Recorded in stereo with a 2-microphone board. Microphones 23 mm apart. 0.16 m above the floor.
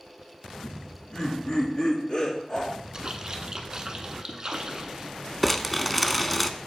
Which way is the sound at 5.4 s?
5° left (ahead or behind).